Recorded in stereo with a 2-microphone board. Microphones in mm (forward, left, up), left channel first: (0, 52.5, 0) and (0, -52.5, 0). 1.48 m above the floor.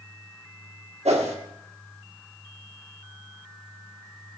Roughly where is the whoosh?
Right.